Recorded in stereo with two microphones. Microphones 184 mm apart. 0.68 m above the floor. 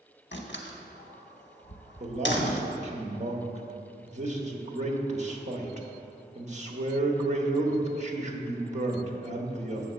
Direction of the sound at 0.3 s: 75° left (ahead or behind).